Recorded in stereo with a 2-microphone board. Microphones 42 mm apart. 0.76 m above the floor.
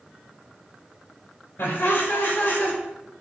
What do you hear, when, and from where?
1.6 s laughter: 60° left (ahead or behind), 2.5 m; by 2.8 s 40° left (ahead or behind), 2.5 m